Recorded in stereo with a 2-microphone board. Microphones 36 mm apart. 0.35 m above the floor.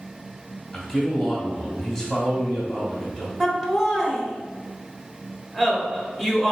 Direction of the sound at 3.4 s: 10° right (ahead or behind).